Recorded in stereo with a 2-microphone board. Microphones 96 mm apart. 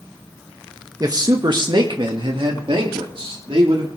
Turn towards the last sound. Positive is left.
turn(degrees=-70)  # may be behind; listen again after turning